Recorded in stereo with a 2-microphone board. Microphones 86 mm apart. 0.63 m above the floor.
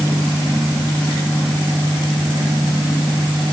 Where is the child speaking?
No child speaking in this recording.